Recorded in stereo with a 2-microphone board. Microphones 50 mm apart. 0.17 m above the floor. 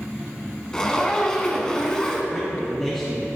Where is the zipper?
15° left (ahead or behind), 0.6 m.